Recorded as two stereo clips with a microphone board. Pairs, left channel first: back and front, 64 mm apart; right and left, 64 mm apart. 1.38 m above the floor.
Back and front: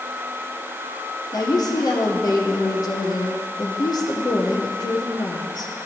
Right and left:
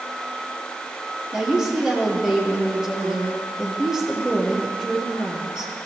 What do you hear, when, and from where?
1.3 s a woman speaking: 170° left, 0.9 m